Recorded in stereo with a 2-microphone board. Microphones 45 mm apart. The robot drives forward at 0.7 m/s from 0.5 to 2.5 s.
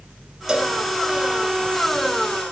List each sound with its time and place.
0.5 s a cowbell: 10° right (ahead or behind), 2.5 m